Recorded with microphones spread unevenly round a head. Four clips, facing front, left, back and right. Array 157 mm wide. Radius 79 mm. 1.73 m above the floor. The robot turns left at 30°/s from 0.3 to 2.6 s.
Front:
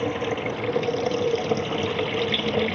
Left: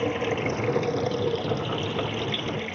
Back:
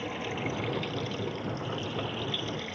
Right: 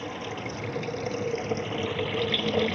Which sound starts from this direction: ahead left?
Running water, at 0.0 s.